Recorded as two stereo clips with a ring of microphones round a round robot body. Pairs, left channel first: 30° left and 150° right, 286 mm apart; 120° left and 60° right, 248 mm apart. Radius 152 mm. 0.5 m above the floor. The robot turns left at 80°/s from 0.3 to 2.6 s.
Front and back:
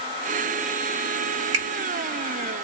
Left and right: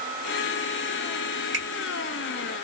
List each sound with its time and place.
1.5 s a finger snap: 130° right, 1.3 m; by 1.6 s 140° right, 1.3 m